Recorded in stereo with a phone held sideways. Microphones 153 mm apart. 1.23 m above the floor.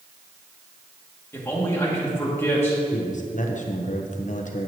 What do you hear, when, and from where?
1.3 s a man speaking: 15° left (ahead or behind), 2.5 m
2.9 s a man speaking: 55° left (ahead or behind), 0.9 m